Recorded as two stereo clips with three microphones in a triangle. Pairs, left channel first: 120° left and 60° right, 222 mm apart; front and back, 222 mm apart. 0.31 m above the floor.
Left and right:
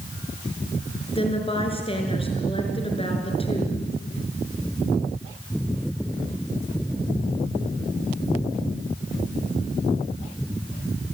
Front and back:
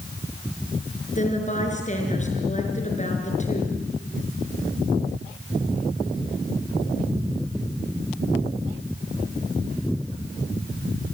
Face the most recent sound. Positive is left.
turn(degrees=55)